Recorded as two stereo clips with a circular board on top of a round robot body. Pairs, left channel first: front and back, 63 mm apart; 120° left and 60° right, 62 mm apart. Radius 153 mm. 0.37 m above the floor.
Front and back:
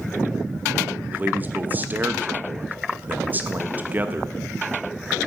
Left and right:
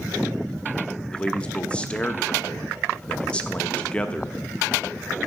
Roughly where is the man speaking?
Behind.